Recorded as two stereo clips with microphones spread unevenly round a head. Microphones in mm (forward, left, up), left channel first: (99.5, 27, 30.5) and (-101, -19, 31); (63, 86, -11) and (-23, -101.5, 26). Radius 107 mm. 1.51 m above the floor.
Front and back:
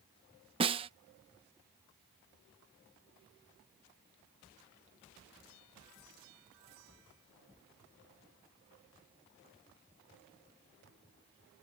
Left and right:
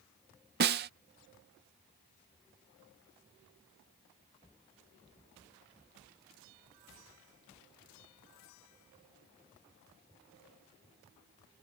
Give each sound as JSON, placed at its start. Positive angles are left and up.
{"t": 0.6, "sound": "a snare drum", "azimuth_deg": -105}